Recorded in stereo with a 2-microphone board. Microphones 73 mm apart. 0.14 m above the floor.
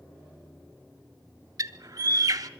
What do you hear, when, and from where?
1.6 s a bird: 60° right (ahead or behind), 0.8 m